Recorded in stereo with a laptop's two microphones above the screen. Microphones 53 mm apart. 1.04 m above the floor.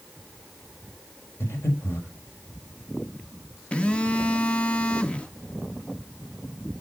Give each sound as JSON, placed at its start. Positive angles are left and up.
{"t": 1.4, "sound": "breathing", "side_deg": 55, "distance_m": 4.0}
{"t": 3.7, "sound": "a phone buzzing", "side_deg": 25, "distance_m": 0.8}